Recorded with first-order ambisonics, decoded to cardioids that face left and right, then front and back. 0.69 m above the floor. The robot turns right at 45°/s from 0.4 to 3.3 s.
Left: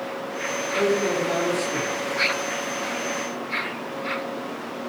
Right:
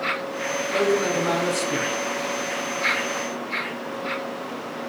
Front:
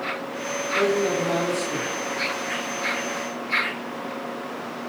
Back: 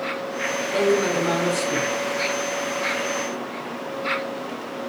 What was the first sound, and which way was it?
A man speaking, 165° right.